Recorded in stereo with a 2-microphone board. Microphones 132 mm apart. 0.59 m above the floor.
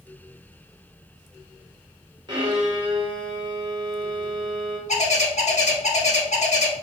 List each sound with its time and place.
2.3 s a violin: 30° right (ahead or behind), 1.4 m
4.9 s a bird: 65° left (ahead or behind), 0.9 m